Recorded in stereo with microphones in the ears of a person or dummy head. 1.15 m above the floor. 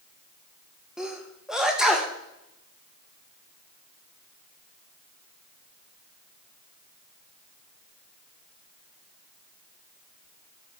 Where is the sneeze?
Centre (ahead or behind), 1.2 m.